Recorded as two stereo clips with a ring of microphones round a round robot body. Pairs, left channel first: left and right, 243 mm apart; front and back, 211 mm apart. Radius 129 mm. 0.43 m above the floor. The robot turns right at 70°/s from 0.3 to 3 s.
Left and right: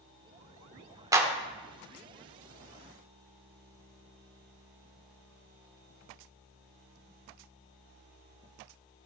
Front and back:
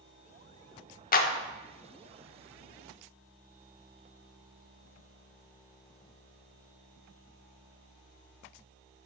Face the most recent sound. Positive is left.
turn(degrees=110)